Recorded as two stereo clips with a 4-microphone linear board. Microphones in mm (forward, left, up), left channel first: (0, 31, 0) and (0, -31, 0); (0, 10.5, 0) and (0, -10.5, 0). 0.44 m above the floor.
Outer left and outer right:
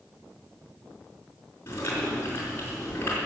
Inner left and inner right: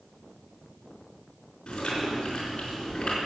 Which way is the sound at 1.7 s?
35° left (ahead or behind).